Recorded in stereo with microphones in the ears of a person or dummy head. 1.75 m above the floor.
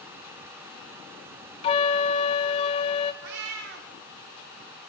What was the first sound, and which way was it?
A flute, 30° left (ahead or behind).